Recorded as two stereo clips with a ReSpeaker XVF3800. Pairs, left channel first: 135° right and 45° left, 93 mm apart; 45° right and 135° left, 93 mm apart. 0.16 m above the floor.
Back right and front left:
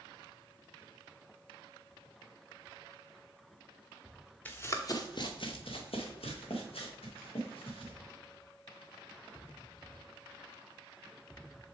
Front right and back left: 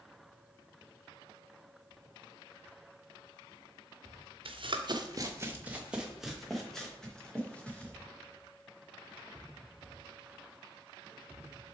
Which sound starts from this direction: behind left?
Running footsteps, at 4.5 s.